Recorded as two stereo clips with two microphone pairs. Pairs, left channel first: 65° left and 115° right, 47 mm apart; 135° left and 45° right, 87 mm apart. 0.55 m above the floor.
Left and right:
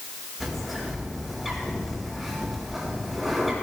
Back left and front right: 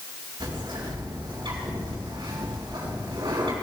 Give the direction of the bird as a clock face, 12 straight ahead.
1 o'clock.